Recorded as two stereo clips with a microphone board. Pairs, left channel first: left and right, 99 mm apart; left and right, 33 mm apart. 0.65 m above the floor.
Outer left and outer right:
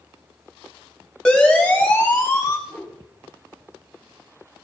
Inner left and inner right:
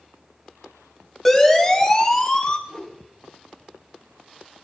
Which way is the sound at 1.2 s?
10° left (ahead or behind).